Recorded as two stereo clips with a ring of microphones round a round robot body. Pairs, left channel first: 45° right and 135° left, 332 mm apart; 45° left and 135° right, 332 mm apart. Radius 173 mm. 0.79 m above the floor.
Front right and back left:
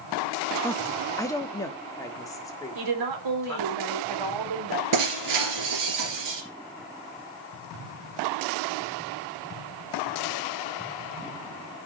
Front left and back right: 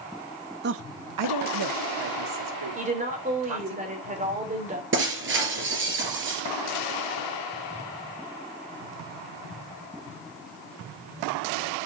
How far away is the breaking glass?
About 3 m.